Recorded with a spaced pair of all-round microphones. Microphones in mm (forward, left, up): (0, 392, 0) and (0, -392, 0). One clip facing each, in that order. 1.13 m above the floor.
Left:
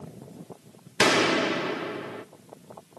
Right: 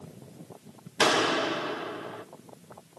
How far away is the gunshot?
About 0.9 m.